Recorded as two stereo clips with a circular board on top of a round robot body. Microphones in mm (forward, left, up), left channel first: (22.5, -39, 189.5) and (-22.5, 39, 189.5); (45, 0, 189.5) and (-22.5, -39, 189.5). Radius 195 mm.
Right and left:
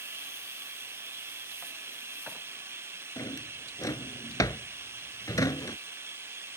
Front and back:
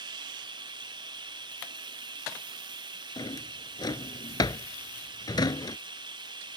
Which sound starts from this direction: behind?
Running water, at 0.0 s.